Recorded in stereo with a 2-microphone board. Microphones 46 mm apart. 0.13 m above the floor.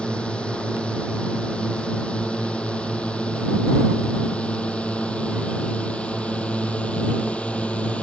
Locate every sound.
0.0 s a drone: 20° left (ahead or behind); by 8.0 s 25° left (ahead or behind)